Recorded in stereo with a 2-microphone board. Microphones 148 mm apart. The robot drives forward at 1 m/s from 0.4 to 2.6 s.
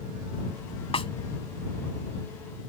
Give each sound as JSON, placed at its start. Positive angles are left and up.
{"t": 0.9, "sound": "a snare drum", "side_deg": 40}